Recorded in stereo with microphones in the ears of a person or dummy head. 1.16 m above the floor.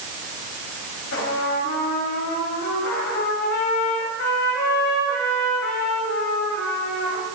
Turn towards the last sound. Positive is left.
turn(degrees=65)  # may be behind; listen again after turning